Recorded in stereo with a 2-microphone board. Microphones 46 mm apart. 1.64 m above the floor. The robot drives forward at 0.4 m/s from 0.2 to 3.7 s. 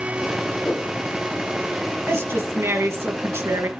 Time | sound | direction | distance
0.7 | a whoosh | 30° left (ahead or behind) | 1.8 m
2.1 | a woman speaking | 65° right (ahead or behind) | 2 m